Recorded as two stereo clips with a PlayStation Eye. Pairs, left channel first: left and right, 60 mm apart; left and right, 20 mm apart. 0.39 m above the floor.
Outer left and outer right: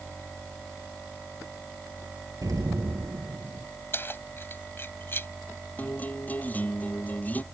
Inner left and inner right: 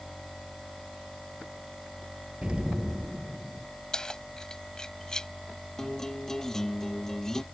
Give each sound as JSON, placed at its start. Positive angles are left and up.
{"t": 2.4, "sound": "an explosion", "side_deg": -75}
{"t": 3.9, "sound": "keys jangling", "side_deg": 40}
{"t": 5.8, "sound": "a guitar", "side_deg": 30}